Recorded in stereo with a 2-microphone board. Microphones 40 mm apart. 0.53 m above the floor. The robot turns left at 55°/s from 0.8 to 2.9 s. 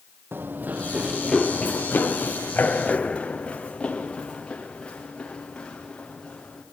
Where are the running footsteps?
60° right (ahead or behind), 0.9 m; by 6.6 s 20° left (ahead or behind), 4.5 m.